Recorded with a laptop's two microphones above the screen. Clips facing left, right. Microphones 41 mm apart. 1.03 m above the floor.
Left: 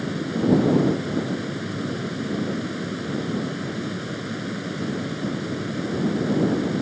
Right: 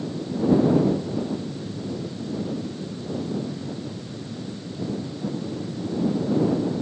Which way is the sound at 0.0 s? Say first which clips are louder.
Left 2 dB; 80° left.